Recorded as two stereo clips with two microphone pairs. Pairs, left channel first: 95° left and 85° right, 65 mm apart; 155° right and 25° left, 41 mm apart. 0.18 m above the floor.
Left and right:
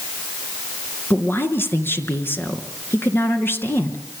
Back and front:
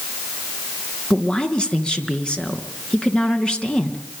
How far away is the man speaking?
About 3 m.